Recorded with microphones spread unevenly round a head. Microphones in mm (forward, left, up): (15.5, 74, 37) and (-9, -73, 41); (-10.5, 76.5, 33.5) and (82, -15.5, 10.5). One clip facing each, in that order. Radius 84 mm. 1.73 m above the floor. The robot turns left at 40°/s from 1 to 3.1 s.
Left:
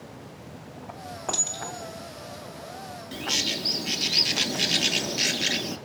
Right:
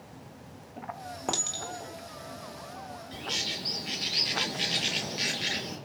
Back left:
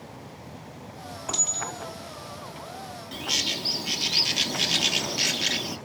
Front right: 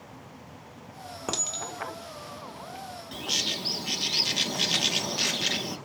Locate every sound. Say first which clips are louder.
1.3 s a clink: even, even; 30° right, 1.9 m; by 3.2 s 100° right, 1.9 m
3.1 s a bird: left 8 dB, back left 2 dB; 60° left, 0.6 m